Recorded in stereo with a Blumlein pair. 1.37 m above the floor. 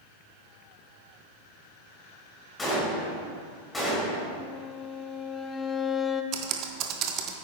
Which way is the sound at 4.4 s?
15° left.